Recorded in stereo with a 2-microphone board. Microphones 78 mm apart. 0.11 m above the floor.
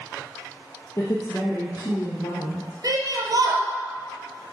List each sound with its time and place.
1.0 s a woman speaking: 40° left (ahead or behind), 2 m; by 2.7 s 60° left (ahead or behind), 2.5 m
2.8 s a shout: 50° right (ahead or behind), 2 m